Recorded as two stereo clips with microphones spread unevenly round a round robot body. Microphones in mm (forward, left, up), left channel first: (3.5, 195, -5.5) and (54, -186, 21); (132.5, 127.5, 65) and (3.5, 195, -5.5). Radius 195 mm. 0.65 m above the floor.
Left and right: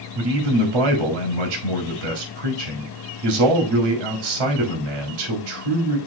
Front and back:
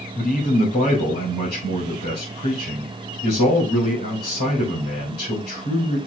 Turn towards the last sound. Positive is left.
turn(degrees=-75)